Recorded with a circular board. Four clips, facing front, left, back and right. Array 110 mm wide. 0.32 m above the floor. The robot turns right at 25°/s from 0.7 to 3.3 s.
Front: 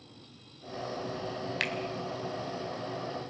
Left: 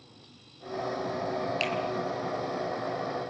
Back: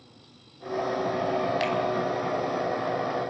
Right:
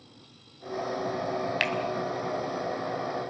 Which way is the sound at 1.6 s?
65° right.